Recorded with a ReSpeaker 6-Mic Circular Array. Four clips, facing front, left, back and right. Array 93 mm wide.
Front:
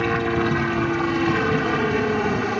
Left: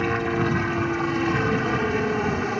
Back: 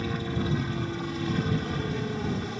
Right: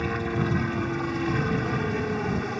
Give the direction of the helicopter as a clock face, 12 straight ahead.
11 o'clock.